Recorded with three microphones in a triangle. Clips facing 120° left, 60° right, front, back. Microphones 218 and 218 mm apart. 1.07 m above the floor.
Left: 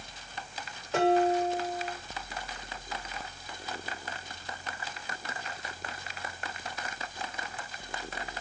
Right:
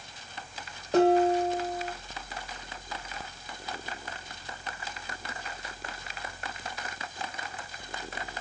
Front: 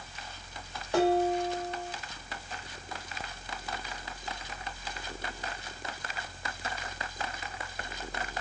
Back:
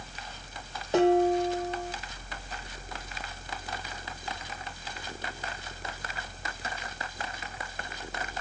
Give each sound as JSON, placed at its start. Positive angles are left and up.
{"t": 0.9, "sound": "dishes clattering", "azimuth_deg": -110, "distance_m": 1.6}